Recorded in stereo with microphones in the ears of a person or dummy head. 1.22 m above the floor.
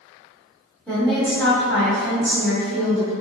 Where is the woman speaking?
10° left (ahead or behind), 1.6 m.